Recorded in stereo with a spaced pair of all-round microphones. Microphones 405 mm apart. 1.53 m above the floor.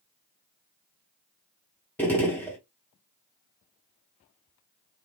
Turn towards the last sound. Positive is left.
turn(degrees=5)  # may be behind; listen again after turning